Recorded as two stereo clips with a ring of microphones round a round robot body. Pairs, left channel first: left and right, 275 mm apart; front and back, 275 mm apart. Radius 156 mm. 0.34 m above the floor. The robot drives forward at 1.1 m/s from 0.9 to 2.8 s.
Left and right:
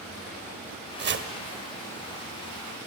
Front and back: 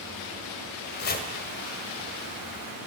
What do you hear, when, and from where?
1.0 s chopping: 45° right, 1.4 m; by 1.3 s 60° right, 1.3 m